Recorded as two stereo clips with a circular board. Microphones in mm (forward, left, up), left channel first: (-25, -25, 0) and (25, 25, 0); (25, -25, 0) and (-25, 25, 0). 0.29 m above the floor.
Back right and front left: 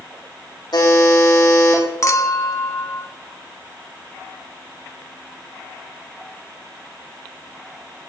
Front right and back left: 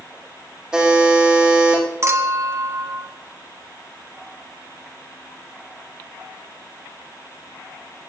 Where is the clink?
175° right, 1.6 m.